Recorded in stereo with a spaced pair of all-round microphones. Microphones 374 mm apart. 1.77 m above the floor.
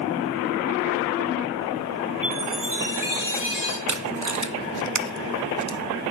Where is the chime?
55° right (ahead or behind), 2.5 m.